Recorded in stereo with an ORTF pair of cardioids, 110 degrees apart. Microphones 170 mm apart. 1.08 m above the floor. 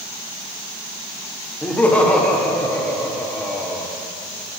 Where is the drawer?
I don't hear a drawer.